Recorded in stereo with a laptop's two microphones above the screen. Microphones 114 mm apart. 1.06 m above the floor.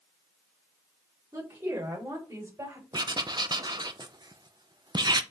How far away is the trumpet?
No trumpet in this recording.